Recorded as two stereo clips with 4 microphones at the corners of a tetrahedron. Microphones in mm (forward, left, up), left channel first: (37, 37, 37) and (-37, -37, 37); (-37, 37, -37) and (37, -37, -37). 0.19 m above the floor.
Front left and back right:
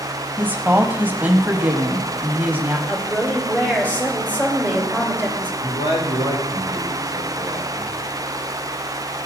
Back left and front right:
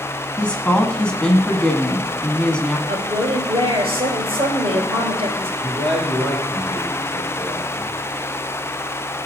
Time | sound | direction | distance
0.4 | a woman speaking | 165° right | 1.0 m
2.9 | a woman speaking | 30° right | 3 m
5.6 | a man speaking | 60° left | 3.5 m